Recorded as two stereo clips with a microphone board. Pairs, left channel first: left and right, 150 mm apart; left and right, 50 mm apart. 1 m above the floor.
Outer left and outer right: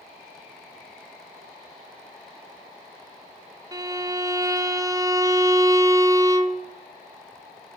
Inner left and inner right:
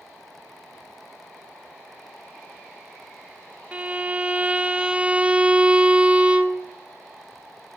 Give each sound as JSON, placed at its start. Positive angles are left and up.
{"t": 3.7, "sound": "a violin", "side_deg": -20, "distance_m": 0.7}